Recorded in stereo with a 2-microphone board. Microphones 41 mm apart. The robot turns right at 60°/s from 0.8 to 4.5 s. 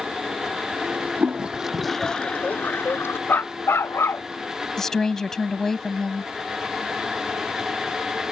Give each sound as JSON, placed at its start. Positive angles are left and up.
{"t": 1.2, "sound": "a toilet flushing", "azimuth_deg": -35}
{"t": 3.3, "sound": "a dog barking", "azimuth_deg": 55}
{"t": 4.8, "sound": "a woman speaking", "side_deg": 10}